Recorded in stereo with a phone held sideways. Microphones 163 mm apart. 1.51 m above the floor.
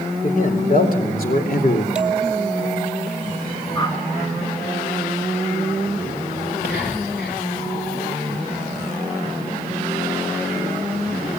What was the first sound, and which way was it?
A man speaking, 55° left (ahead or behind).